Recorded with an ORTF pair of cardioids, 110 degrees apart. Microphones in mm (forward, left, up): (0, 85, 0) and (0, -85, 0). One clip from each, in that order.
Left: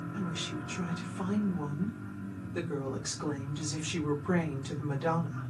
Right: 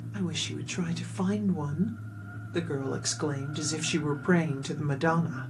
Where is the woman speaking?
55° right, 0.9 m.